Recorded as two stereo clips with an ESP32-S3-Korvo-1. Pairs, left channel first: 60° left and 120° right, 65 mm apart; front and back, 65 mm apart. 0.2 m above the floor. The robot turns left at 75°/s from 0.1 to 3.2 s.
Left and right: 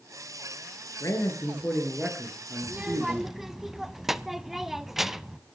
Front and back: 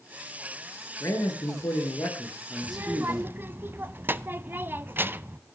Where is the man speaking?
35° left, 4 m; by 3.4 s 130° right, 4 m.